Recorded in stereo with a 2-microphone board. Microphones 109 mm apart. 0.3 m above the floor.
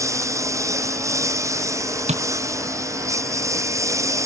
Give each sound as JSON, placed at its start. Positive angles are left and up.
{"t": 0.0, "sound": "a lawn mower", "side_deg": -25}
{"t": 2.1, "sound": "tapping", "side_deg": -85}